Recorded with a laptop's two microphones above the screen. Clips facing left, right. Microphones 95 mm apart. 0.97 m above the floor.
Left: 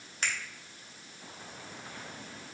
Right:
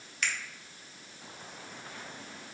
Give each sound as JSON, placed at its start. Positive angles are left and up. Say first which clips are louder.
{"t": 0.2, "sound": "a finger snap", "louder": "even", "side_deg": 30, "distance_m": 0.6}